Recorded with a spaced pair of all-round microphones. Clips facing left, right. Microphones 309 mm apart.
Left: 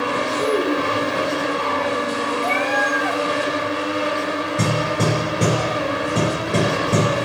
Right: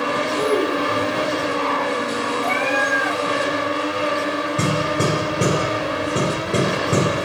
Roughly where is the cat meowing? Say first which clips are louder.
Even; right.